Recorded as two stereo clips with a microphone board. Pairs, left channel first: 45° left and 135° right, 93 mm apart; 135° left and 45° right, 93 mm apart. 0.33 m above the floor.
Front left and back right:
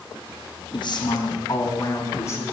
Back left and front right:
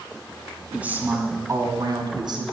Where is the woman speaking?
30° left, 2.5 m; by 2.4 s 15° right, 3 m.